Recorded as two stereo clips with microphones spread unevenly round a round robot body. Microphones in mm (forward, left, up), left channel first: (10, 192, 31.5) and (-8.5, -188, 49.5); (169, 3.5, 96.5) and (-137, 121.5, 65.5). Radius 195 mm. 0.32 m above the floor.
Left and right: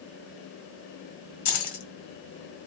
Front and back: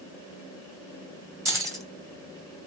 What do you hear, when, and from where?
1.4 s keys jangling: 80° left, 1.8 m